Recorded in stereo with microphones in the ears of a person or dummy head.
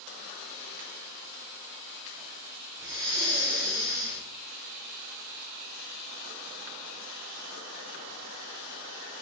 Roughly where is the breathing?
Right.